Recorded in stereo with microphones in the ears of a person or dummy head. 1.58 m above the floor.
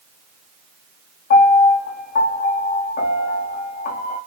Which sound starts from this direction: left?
A piano, at 1.3 s.